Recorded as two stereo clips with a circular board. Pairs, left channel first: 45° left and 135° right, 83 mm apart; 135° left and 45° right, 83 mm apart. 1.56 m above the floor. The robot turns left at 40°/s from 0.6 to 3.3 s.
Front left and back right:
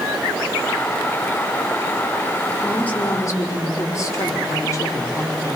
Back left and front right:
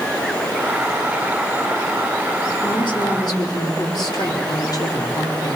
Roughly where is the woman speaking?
Behind left.